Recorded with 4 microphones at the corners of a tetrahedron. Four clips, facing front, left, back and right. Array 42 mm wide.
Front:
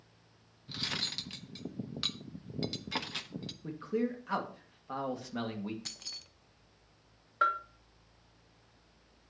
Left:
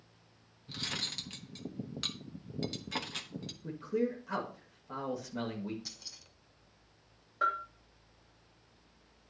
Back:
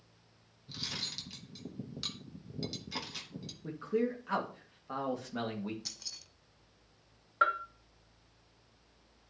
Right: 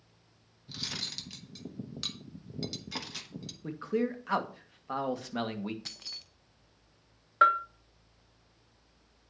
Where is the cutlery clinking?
30° left, 0.9 m.